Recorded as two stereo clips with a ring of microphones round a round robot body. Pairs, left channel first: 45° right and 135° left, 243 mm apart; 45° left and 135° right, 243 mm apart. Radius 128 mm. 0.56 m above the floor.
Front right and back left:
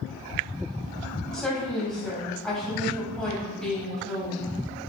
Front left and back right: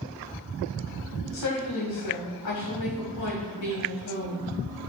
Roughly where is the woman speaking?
Ahead left.